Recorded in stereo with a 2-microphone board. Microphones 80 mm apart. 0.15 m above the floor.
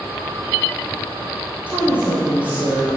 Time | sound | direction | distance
1.7 | a woman speaking | 15° right (ahead or behind) | 5.5 m